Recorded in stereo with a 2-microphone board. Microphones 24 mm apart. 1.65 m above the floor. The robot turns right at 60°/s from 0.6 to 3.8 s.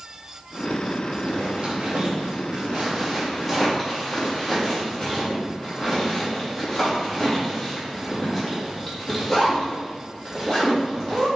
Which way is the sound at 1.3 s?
45° right (ahead or behind).